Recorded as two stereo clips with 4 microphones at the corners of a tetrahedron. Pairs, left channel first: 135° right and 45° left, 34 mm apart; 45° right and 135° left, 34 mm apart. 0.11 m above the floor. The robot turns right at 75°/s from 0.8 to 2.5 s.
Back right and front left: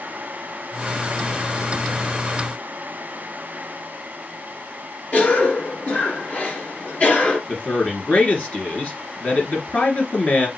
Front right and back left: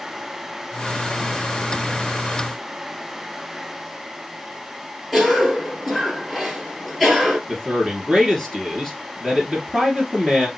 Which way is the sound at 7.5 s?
120° right.